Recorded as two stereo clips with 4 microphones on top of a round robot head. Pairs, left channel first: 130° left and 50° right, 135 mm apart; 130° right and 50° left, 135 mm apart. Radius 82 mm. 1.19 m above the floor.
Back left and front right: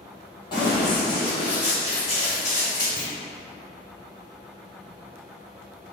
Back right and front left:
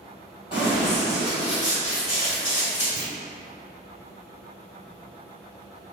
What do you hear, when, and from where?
0.5 s running footsteps: 175° right, 1.9 m; by 2.9 s straight behind, 4 m
3.0 s a clunk: 50° left, 1.7 m